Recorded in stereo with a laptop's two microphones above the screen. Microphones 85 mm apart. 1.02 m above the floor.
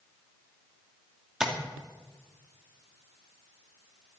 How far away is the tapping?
About 2.5 m.